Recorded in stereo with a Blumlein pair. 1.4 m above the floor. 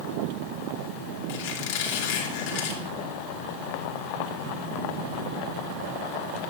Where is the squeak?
50° left, 3 m.